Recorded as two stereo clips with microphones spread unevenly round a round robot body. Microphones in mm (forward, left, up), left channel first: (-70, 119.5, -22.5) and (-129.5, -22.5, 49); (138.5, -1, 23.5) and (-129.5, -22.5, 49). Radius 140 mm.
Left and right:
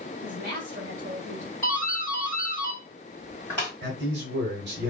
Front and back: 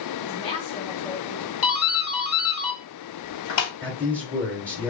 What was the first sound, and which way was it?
A woman speaking, 55° right.